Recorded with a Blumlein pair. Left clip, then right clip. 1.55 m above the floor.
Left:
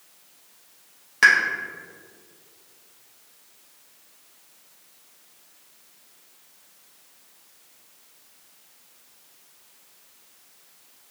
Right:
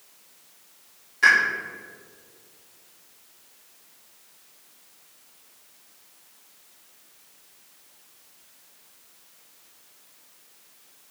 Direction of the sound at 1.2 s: 35° left.